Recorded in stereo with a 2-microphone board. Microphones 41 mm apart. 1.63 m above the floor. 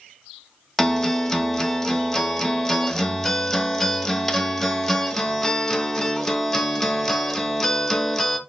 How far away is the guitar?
About 1.1 m.